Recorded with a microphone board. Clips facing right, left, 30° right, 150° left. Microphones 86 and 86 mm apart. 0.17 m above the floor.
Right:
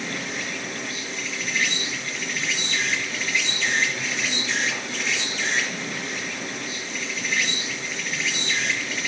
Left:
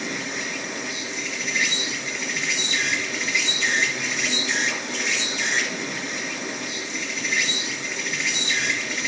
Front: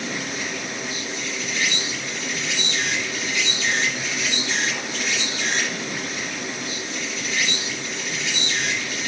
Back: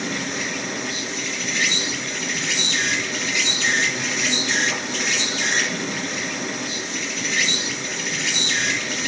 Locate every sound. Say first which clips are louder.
0.0 s an insect: left 1 dB, back 2 dB; 170° left, 5.5 m